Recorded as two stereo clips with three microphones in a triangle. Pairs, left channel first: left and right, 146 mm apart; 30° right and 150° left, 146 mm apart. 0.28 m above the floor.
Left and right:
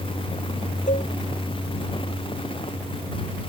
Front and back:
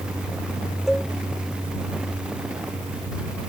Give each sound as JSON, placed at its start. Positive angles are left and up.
{"t": 0.9, "sound": "a cowbell", "azimuth_deg": 65}